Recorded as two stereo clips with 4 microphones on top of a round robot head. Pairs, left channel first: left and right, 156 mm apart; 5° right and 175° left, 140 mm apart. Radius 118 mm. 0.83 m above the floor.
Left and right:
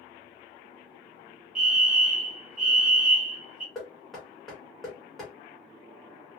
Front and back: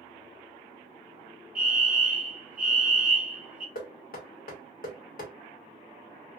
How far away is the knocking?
About 1.4 m.